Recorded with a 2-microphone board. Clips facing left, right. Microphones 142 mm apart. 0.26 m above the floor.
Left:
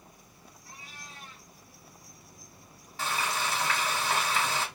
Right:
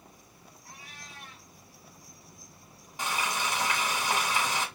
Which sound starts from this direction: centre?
Frying, at 3.0 s.